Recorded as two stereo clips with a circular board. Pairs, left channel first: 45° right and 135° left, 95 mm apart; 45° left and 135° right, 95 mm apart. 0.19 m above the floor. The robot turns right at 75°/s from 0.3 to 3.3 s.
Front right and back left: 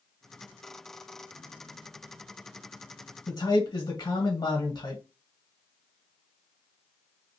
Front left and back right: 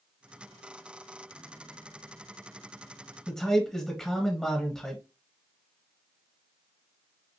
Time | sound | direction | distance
3.3 | a man speaking | 40° right | 1.4 m